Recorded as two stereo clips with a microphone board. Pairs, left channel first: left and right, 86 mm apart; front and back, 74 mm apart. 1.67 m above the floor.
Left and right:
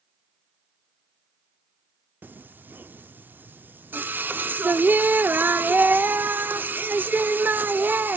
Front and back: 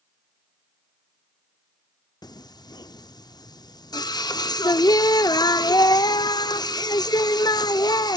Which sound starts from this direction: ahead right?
Singing, at 2.2 s.